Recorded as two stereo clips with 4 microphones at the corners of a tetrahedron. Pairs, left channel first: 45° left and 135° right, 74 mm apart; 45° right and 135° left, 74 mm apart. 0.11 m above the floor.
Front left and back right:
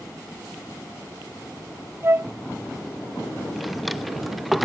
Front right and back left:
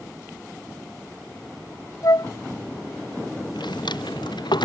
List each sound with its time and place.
2.0 s a flute: 80° right
3.5 s a drawer: 45° right